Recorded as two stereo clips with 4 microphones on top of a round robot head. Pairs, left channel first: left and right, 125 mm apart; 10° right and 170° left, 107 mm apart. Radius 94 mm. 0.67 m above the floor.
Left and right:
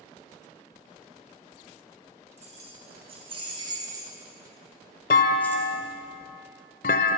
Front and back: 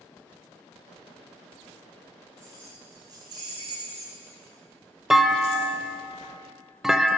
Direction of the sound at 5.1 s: 80° left.